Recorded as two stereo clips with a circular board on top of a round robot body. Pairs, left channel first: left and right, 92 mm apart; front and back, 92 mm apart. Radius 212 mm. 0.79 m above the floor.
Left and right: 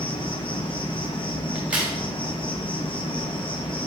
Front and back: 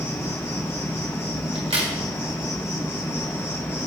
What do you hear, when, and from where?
0.0 s an insect: 60° left, 1.2 m
1.6 s a crack: 165° right, 1.4 m